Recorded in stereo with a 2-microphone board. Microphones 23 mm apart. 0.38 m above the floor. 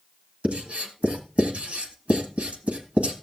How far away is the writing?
About 1.8 m.